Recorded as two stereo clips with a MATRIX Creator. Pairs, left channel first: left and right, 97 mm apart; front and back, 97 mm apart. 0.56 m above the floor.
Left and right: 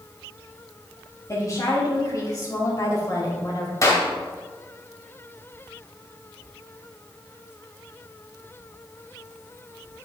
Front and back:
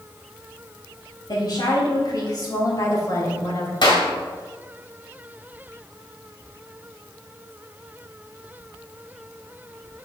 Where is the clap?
35° left, 2 m.